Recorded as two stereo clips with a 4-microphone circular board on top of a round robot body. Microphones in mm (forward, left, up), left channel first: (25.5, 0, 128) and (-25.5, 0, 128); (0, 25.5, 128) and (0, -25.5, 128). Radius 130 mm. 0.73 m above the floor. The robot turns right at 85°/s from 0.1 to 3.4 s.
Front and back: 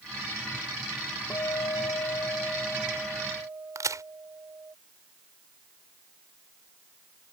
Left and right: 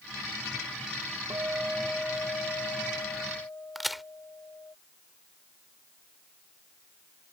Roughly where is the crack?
Behind.